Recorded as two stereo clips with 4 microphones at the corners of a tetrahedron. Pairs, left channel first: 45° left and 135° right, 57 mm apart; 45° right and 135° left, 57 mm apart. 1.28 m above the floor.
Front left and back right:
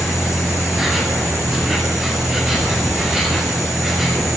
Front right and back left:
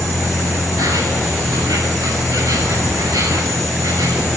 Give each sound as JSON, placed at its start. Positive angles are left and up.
{"t": 0.0, "sound": "an insect", "azimuth_deg": 145, "distance_m": 9.0}